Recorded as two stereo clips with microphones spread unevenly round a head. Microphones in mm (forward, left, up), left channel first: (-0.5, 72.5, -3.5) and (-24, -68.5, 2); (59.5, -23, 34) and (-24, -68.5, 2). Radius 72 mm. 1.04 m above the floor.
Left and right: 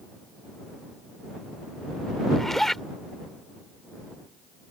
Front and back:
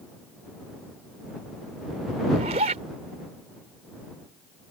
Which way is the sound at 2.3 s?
170° left.